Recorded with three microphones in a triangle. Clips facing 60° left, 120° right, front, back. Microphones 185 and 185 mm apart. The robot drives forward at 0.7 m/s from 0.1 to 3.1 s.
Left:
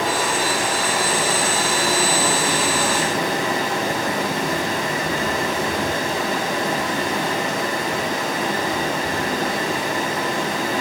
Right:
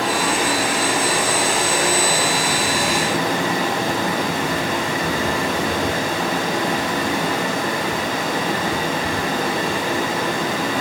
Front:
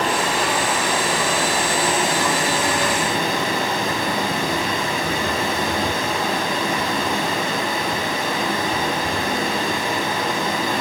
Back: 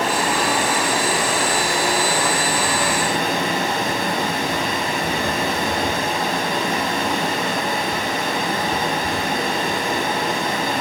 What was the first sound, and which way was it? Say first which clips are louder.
Running water: right 1 dB, back 1 dB; 130° right.